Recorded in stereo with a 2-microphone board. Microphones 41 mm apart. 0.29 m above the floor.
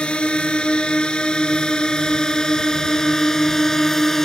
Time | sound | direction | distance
0.0 | a drone | 25° left (ahead or behind) | ?